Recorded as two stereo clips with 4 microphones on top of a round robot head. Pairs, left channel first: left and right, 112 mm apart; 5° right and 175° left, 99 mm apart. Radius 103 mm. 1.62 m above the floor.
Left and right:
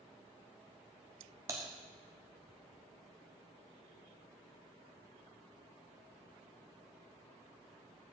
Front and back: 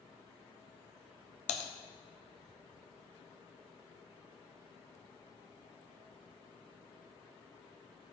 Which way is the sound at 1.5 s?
20° right.